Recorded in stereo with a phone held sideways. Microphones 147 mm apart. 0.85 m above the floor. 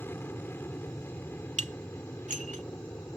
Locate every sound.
0.0 s an aircraft: 15° left (ahead or behind)
1.6 s dishes clattering: 55° right (ahead or behind)